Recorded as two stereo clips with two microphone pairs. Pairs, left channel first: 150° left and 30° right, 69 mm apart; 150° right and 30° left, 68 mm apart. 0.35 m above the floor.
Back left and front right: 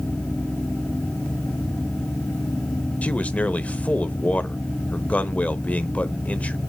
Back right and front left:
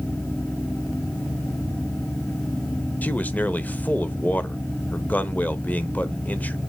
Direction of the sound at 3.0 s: 175° right.